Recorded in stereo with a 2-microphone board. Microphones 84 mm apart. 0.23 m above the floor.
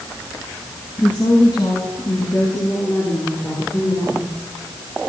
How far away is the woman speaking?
About 2.5 m.